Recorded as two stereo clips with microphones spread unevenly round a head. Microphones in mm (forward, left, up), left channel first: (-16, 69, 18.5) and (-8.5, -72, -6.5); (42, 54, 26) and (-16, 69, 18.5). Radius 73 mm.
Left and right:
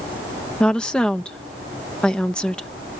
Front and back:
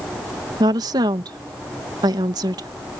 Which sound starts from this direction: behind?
A woman speaking, at 0.6 s.